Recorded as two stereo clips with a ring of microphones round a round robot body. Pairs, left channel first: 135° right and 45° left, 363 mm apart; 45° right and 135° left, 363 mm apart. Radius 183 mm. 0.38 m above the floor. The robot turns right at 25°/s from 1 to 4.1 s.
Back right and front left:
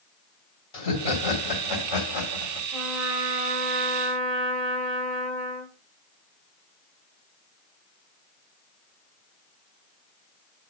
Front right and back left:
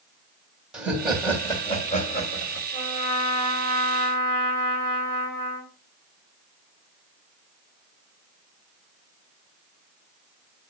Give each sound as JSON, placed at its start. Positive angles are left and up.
{"t": 0.7, "sound": "laughter", "azimuth_deg": -135, "distance_m": 2.5}
{"t": 2.7, "sound": "a trumpet", "azimuth_deg": -45, "distance_m": 3.0}